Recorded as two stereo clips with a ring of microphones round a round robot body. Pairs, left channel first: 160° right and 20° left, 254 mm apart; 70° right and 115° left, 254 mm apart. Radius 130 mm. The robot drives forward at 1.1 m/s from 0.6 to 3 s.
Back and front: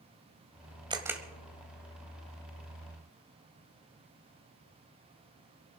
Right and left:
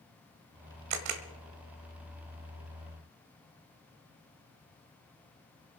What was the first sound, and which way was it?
A camera shutter, 95° left.